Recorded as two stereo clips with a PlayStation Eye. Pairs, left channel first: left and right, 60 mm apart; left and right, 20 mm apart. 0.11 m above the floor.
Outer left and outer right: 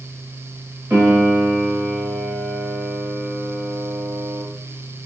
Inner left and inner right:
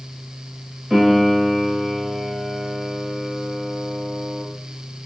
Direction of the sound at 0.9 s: 20° right (ahead or behind).